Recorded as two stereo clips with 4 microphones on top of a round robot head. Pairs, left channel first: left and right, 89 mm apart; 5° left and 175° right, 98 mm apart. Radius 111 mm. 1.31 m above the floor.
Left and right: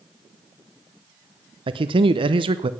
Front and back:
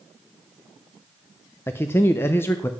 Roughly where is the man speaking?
Ahead right.